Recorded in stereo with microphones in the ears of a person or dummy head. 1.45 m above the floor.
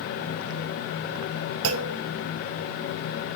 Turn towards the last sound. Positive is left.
turn(degrees=-70)  # may be behind; listen again after turning